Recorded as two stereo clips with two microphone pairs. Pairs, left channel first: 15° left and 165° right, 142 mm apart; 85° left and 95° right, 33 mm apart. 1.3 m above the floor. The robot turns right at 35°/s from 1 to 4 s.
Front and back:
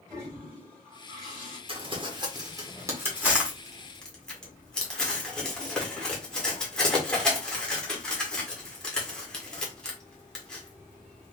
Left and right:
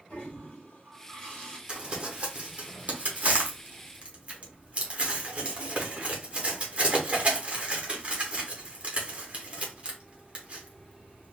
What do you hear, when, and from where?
0.1 s a toilet flushing: 125° left, 2 m; by 1.6 s 145° left, 2 m
1.7 s crumpling: 145° right, 1.1 m; by 11.3 s 65° right, 1.1 m